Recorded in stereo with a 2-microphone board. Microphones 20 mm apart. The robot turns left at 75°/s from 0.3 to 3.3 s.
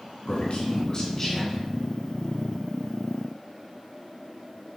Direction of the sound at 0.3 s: 90° left.